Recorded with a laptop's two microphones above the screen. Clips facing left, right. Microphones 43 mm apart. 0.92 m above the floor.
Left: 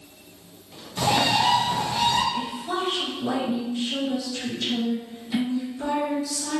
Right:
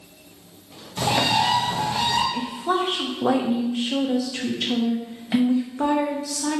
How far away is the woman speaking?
About 0.7 m.